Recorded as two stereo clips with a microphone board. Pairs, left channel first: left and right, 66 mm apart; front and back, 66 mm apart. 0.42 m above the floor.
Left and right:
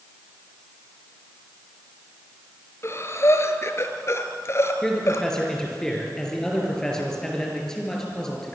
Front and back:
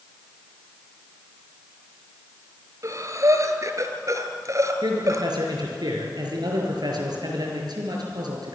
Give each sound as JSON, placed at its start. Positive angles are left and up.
{"t": 2.8, "sound": "breathing", "azimuth_deg": 140, "distance_m": 1.9}
{"t": 4.8, "sound": "a man speaking", "azimuth_deg": 175, "distance_m": 6.0}